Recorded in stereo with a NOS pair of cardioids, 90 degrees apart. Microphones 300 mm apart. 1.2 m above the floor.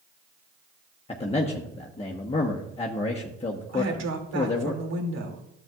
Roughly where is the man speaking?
Ahead.